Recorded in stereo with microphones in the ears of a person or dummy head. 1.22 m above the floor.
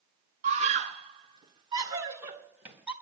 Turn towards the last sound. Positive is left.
turn(degrees=-10)  # may be behind; listen again after turning